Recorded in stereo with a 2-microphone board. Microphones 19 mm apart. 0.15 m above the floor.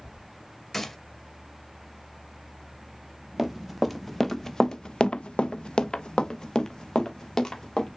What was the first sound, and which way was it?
A gunshot, 25° left (ahead or behind).